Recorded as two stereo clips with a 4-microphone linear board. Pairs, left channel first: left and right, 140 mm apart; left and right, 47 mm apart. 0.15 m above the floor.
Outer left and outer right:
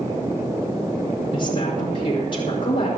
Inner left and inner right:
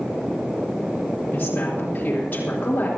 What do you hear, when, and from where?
1.3 s a woman speaking: 40° left (ahead or behind), 6 m